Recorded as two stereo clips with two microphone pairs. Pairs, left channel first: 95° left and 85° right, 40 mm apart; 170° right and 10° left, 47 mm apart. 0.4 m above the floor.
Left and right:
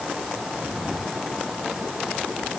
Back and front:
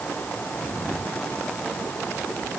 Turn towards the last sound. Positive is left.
No sound to turn to.